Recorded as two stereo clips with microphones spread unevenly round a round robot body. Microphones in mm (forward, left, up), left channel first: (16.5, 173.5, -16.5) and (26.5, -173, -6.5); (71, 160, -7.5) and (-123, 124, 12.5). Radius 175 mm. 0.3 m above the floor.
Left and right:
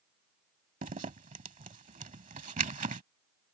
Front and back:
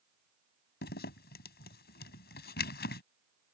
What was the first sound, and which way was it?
A zipper, 20° right.